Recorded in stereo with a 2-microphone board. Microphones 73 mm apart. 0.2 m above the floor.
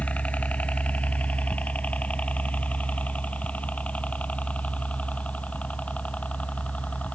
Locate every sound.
0.0 s a helicopter: 20° left (ahead or behind)